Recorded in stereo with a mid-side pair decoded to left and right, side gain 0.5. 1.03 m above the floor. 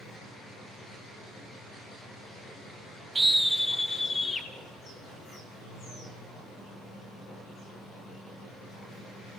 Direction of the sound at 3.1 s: 20° right.